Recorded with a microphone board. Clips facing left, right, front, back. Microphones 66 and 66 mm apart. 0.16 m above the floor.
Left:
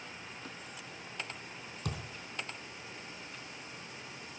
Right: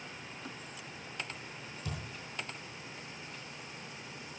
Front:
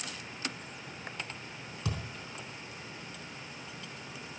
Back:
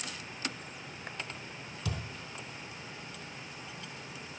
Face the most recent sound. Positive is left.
turn(degrees=55)